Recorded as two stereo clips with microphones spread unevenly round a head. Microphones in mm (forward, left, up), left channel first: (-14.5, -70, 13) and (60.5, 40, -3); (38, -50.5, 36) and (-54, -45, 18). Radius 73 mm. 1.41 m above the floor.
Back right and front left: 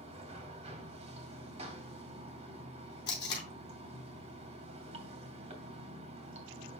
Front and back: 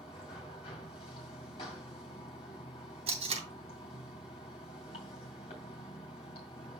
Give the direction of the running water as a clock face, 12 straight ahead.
11 o'clock.